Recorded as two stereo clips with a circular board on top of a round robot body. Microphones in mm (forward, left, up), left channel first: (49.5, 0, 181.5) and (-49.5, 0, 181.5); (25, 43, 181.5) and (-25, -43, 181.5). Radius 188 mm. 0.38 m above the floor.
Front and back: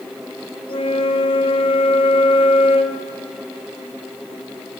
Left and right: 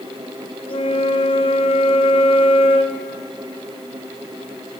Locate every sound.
0.7 s a flute: 30° left, 0.6 m